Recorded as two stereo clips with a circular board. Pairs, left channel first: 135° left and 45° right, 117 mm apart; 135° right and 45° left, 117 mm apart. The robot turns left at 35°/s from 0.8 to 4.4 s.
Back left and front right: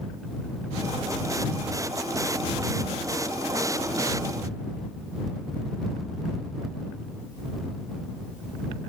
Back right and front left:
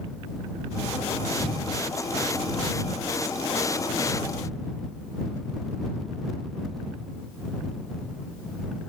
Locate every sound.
Only background noise.